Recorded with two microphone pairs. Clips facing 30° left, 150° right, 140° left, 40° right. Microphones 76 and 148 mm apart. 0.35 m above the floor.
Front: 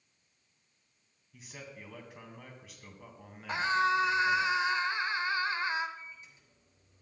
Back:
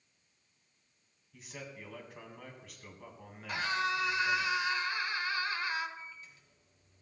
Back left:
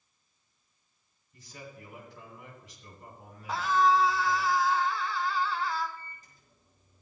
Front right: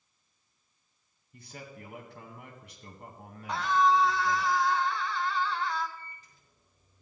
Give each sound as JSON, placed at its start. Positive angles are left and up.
{"t": 1.3, "sound": "a man speaking", "azimuth_deg": -60, "distance_m": 2.5}
{"t": 3.5, "sound": "a scream", "azimuth_deg": 55, "distance_m": 1.2}
{"t": 6.0, "sound": "a microwave", "azimuth_deg": 95, "distance_m": 3.5}